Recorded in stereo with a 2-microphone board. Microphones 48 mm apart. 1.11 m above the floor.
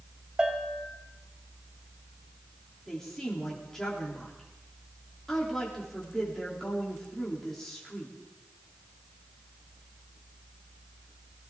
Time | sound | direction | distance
0.4 | a bell | 15° right (ahead or behind) | 1.9 m
2.9 | a woman speaking | 10° left (ahead or behind) | 3 m